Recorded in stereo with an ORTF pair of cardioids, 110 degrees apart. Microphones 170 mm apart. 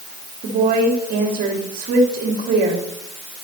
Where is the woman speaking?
65° right, 3 m.